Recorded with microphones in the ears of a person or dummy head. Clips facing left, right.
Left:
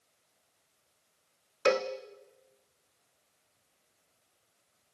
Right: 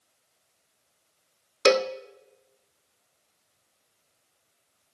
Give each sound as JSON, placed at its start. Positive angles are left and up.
{"t": 1.6, "sound": "a cowbell", "side_deg": -40, "distance_m": 0.8}